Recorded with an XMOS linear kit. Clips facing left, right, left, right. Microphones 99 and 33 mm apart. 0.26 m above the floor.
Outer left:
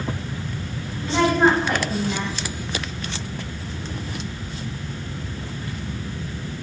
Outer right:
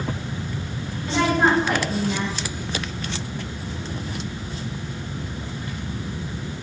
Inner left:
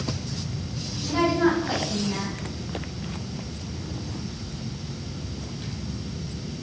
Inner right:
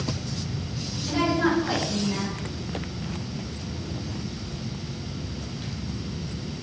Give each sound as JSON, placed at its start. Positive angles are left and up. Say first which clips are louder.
{"t": 1.1, "sound": "a woman speaking", "louder": "outer left 2 dB, inner left 2 dB", "side_deg": -5, "distance_m": 1.4}